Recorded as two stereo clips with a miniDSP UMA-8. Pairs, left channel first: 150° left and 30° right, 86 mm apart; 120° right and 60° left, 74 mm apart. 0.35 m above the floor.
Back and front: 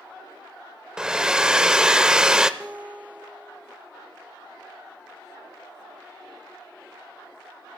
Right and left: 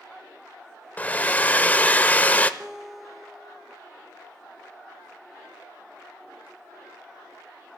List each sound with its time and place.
1.0 s a hair dryer: 95° right, 0.6 m
2.6 s a guitar: 10° right, 0.7 m